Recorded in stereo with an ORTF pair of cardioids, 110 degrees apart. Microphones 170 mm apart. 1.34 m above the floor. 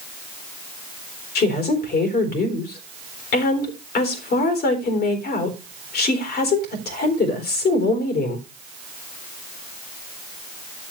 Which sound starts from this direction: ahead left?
A woman speaking, at 1.4 s.